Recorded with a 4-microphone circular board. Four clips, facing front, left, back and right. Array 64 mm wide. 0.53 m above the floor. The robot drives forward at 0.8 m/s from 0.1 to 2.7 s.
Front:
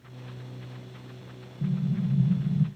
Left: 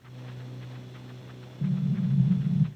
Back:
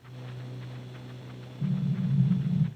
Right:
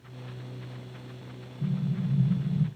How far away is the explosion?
About 2.5 m.